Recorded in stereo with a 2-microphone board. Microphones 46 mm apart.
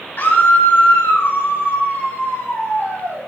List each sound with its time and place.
0.2 s a scream: 50° left (ahead or behind), 1.8 m; by 3.2 s 55° left (ahead or behind), 6 m